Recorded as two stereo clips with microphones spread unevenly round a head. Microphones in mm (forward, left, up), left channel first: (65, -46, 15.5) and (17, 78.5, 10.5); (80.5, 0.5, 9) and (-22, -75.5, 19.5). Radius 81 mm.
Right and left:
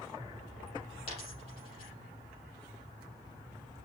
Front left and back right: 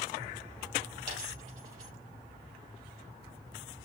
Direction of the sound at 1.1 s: 120° right.